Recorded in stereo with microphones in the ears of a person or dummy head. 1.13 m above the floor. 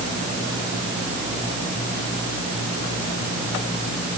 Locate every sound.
Only background noise.